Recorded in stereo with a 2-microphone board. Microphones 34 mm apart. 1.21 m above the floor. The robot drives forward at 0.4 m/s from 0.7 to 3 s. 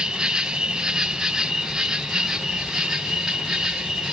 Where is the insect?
20° right (ahead or behind), 1.1 m; by 4.1 s 10° right (ahead or behind), 2.0 m.